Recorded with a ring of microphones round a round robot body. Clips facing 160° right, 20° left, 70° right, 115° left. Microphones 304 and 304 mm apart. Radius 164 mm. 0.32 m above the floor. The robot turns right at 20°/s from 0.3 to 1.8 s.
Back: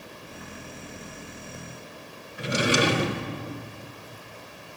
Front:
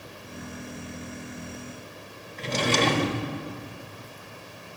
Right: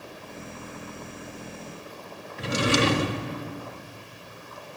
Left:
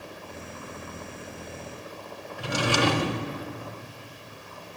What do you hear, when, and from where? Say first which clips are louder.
2.4 s a drawer: back 1 dB, right 2 dB; 90° right, 0.6 m